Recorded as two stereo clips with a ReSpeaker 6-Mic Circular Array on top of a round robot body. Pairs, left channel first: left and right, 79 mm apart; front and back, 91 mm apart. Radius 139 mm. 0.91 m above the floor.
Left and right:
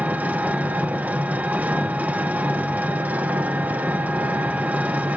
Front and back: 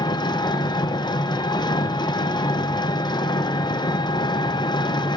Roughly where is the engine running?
Ahead right.